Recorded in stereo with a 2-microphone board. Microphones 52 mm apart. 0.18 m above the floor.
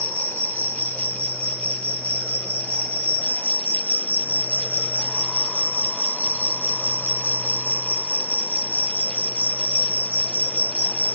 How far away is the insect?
About 0.7 m.